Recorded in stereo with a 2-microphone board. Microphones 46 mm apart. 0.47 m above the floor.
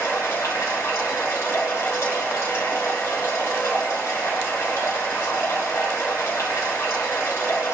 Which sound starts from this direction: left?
Running water, at 0.0 s.